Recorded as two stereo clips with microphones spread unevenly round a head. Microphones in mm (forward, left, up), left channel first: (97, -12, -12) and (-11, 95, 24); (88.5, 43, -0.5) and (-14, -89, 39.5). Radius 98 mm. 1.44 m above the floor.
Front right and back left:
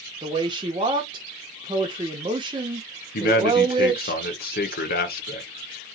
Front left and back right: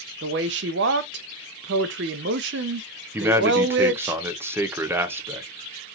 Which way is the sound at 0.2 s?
155° right.